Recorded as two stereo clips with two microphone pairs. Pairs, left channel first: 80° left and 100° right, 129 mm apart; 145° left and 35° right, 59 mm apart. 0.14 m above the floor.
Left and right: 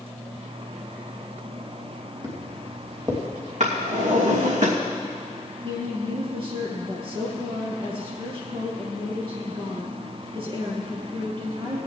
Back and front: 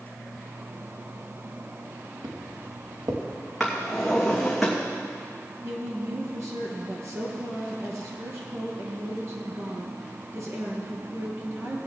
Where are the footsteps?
35° right, 2.5 m.